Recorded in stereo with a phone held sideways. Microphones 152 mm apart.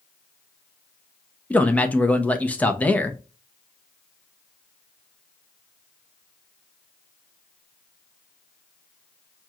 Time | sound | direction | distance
1.5 | a man speaking | 10° left (ahead or behind) | 0.7 m